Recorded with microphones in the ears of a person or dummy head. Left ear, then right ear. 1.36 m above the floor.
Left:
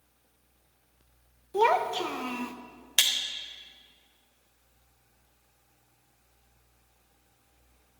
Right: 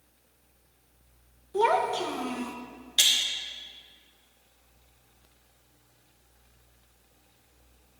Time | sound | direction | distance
1.5 | a child speaking | 25° left (ahead or behind) | 0.7 m
3.0 | breaking glass | 45° left (ahead or behind) | 1.1 m